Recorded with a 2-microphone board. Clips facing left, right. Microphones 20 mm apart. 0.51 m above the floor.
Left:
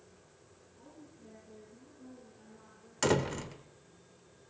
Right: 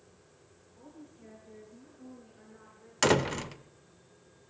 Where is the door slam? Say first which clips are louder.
Right 4 dB; 30° right (ahead or behind), 0.8 m.